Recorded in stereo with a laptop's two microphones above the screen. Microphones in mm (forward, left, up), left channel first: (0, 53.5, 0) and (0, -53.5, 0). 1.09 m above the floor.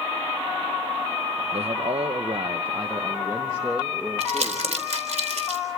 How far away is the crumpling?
About 3.5 m.